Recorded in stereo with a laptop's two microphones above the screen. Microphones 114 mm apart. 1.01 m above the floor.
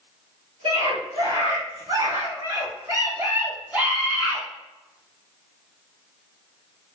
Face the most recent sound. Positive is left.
turn(degrees=-5)  # may be behind; listen again after turning